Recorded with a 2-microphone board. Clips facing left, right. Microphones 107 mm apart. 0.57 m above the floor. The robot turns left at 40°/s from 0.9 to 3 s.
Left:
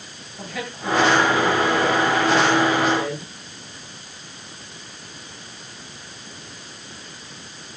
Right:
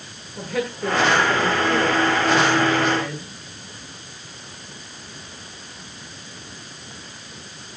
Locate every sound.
0.4 s a woman speaking: 110° right, 9 m; by 3.3 s 170° left, 9 m